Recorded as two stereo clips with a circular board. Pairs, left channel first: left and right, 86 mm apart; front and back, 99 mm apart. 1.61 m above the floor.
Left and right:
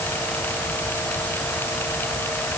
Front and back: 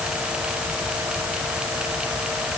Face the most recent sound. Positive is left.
No sound to turn to.